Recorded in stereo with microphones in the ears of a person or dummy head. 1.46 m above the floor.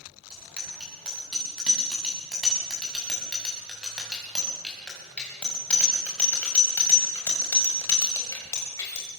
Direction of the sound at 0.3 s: 5° right (ahead or behind).